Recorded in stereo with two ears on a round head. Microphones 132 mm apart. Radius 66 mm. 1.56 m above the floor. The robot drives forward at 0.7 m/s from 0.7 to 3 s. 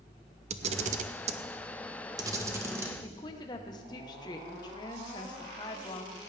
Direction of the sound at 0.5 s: 45° right (ahead or behind).